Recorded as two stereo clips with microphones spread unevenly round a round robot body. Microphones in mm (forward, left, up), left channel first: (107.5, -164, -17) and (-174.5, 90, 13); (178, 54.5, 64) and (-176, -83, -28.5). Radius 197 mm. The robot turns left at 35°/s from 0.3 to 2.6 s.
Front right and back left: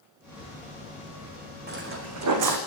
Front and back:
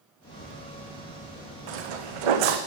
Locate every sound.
1.7 s footsteps: 160° right, 3 m; by 2.6 s 170° left, 3 m